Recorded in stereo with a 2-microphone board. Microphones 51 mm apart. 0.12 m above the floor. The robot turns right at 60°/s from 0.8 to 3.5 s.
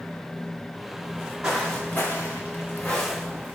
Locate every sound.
1.0 s footsteps: 50° right (ahead or behind), 1.5 m; by 3.5 s 30° right (ahead or behind), 1.3 m